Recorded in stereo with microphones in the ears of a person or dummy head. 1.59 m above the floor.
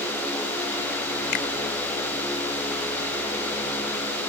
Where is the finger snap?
60° left (ahead or behind).